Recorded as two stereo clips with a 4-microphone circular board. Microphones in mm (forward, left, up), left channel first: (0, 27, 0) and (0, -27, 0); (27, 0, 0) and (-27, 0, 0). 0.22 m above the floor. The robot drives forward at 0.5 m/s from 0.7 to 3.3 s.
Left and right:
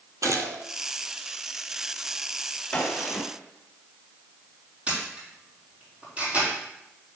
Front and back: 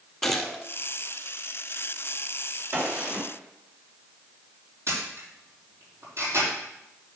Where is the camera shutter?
155° right, 5 m.